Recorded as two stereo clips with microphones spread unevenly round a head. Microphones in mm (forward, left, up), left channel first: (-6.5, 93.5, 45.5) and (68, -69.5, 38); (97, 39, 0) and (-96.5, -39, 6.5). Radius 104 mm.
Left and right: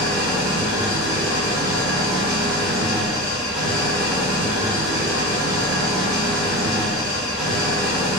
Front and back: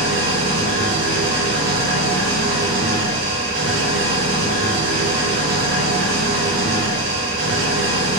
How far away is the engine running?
About 1.4 m.